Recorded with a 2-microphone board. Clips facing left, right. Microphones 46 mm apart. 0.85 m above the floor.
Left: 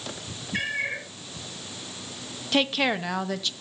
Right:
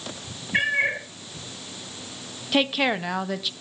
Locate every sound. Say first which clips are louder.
0.5 s a cat meowing: right 6 dB; 35° right (ahead or behind), 3 m
2.5 s a woman speaking: right 1 dB; 5° right (ahead or behind), 0.7 m